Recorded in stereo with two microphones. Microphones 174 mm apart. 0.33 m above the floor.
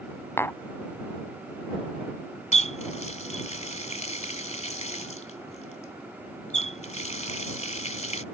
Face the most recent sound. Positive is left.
turn(degrees=40)  # may be behind; listen again after turning